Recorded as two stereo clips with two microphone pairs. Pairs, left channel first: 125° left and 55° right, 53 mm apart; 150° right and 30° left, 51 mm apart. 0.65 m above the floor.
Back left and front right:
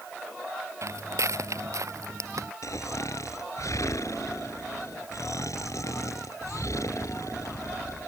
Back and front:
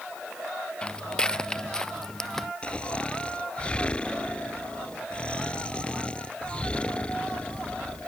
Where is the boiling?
I don't hear boiling.